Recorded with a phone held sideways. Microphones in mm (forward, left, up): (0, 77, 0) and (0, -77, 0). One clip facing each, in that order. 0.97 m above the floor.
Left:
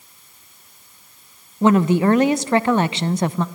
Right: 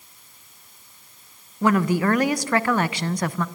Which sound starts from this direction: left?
A woman speaking, at 1.6 s.